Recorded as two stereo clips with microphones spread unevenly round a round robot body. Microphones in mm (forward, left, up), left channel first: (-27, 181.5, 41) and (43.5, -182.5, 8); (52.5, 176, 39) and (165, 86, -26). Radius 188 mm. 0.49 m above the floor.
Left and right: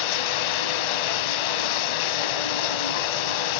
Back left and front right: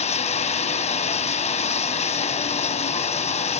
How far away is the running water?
About 0.8 m.